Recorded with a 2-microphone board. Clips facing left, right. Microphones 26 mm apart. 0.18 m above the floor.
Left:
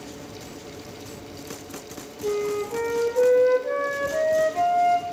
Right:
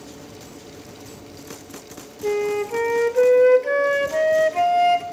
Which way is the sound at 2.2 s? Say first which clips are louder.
Right 3 dB; 65° right (ahead or behind).